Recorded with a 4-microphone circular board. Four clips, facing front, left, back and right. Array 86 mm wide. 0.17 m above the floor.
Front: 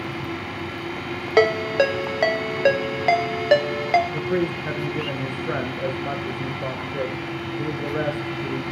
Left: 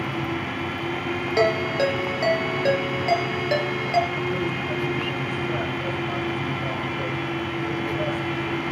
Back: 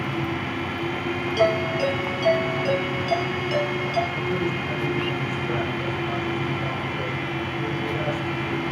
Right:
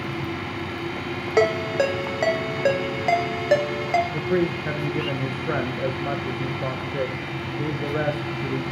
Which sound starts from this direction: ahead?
A ringtone, at 1.4 s.